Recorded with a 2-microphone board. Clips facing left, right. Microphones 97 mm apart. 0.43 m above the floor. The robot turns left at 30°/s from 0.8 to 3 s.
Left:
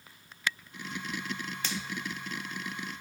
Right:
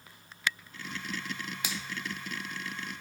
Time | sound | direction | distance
1.6 | a finger snap | 10° right (ahead or behind) | 0.6 m